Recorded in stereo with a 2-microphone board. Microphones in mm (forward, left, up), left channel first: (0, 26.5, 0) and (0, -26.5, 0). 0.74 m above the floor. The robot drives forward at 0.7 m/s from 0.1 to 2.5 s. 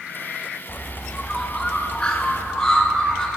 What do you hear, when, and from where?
0.7 s a bird: 25° left (ahead or behind), 1.0 m; by 3.3 s 10° left (ahead or behind), 2 m